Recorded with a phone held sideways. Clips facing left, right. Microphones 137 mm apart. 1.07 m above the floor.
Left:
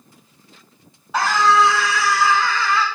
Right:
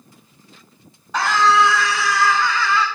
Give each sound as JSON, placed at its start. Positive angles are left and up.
{"t": 1.1, "sound": "a scream", "side_deg": 5, "distance_m": 3.0}